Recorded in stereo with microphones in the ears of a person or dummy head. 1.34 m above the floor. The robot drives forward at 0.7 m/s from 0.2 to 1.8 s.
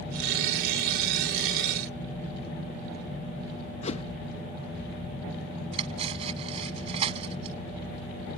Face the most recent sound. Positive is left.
turn(degrees=-35)  # may be behind; listen again after turning